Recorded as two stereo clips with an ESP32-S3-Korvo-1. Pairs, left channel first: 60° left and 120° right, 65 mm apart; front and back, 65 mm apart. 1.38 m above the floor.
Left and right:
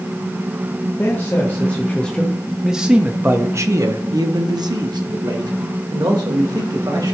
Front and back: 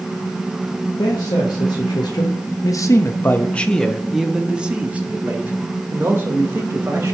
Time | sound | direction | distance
1.0 | a man speaking | straight ahead | 1.4 m